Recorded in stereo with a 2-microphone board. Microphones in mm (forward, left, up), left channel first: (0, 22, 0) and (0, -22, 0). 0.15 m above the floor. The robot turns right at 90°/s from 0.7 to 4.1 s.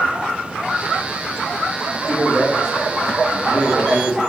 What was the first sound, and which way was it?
A man speaking, 145° left.